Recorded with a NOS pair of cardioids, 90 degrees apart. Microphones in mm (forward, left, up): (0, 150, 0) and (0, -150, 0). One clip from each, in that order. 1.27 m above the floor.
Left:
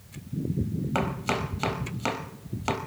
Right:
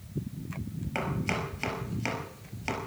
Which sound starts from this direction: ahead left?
Chopping, at 0.9 s.